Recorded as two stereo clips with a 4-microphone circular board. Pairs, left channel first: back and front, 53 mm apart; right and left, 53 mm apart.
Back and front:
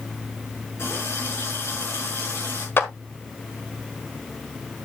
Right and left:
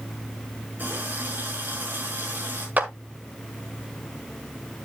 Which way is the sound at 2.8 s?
140° left.